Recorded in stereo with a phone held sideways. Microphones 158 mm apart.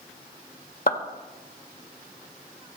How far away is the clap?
About 1.8 m.